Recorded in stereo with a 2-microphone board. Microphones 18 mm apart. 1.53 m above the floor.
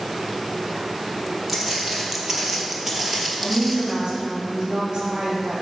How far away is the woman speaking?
About 3.5 m.